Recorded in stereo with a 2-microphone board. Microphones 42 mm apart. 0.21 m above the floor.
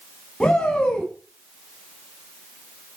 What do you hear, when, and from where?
0.4 s a shout: 15° left (ahead or behind), 2 m